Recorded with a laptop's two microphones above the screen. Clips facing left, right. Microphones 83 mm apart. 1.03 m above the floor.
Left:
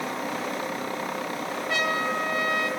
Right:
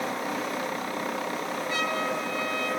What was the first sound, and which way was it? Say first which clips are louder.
A trumpet: left 3 dB; 80° left.